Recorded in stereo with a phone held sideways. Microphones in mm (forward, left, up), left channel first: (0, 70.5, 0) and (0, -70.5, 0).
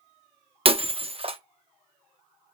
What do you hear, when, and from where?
0.7 s breaking glass: 40° right (ahead or behind), 0.6 m